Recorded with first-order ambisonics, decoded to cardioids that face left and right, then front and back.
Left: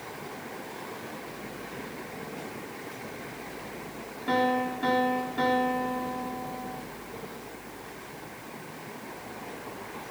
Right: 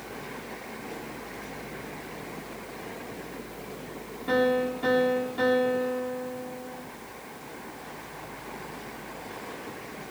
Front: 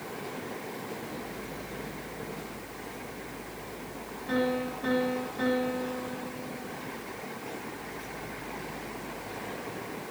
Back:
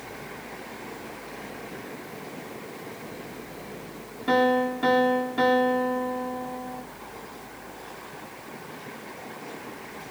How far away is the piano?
About 2.5 m.